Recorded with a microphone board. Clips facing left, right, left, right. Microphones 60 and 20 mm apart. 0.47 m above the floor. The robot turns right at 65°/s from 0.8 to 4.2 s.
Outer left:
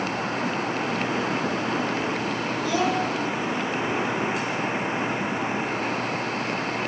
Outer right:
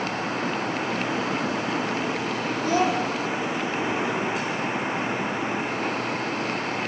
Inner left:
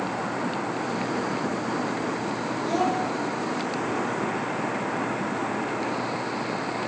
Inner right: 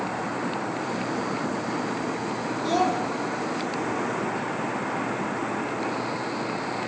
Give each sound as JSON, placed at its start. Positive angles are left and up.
{"t": 2.6, "sound": "a child speaking", "side_deg": -45, "distance_m": 3.0}